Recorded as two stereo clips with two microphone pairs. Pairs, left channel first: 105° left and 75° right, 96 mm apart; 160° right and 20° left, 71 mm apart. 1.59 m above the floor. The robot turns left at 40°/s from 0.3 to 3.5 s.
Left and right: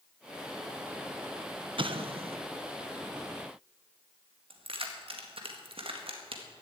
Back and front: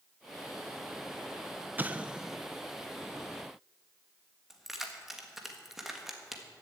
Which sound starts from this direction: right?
Keys jangling, at 4.5 s.